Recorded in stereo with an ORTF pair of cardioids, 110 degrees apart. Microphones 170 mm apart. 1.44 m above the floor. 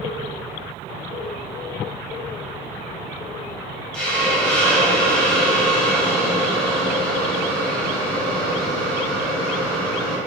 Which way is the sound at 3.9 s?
5° left.